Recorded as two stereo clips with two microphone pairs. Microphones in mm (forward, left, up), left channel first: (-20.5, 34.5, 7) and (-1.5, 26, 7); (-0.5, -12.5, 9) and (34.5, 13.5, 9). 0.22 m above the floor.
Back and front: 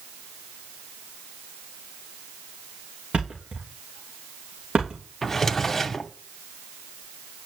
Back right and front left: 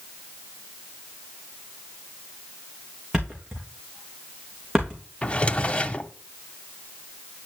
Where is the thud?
40° right, 3 m.